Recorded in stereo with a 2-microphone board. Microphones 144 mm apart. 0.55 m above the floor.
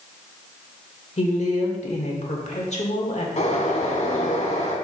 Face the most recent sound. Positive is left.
turn(degrees=55)  # may be behind; listen again after turning